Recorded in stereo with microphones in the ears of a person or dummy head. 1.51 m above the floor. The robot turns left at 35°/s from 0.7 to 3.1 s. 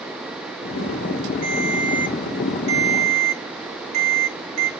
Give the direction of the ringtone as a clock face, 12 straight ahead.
2 o'clock.